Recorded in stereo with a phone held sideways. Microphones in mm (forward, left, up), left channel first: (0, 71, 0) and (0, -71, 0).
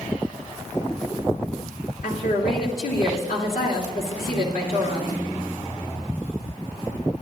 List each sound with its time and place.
2.0 s a woman speaking: 75° left (ahead or behind), 3 m